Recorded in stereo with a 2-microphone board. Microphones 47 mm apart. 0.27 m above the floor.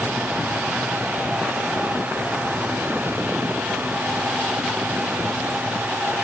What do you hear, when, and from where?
Only background noise.